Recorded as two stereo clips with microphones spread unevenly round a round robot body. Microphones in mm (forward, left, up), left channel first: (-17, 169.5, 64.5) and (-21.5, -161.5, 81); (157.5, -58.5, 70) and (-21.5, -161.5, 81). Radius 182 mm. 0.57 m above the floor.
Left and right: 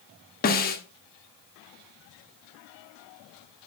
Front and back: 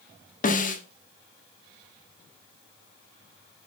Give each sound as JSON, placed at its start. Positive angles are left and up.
{"t": 0.4, "sound": "a snare drum", "azimuth_deg": 45, "distance_m": 1.4}